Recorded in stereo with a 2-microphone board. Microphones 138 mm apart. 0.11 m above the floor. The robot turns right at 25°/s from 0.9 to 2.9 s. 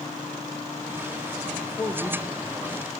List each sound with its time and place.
1.6 s a man speaking: 160° left, 3.5 m; by 2.9 s 165° right, 3.5 m